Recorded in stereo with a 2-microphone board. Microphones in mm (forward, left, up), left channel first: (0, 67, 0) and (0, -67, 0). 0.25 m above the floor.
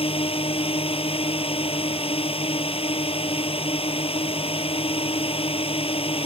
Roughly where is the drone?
Left.